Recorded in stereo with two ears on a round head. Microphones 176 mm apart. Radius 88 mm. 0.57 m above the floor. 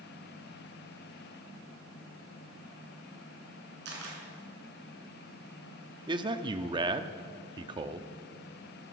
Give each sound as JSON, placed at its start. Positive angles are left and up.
{"t": 3.9, "sound": "a camera shutter", "side_deg": -60, "distance_m": 4.0}
{"t": 6.1, "sound": "a man speaking", "side_deg": -25, "distance_m": 0.6}